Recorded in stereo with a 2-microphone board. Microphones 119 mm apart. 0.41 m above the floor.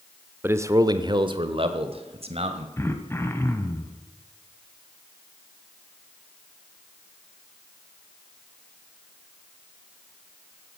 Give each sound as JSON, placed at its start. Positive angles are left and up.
{"t": 0.4, "sound": "a man speaking", "side_deg": -20, "distance_m": 0.8}
{"t": 2.8, "sound": "throat clearing", "side_deg": 20, "distance_m": 1.5}